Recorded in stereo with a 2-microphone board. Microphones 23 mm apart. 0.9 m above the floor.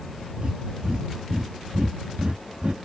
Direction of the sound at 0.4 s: 55° right (ahead or behind).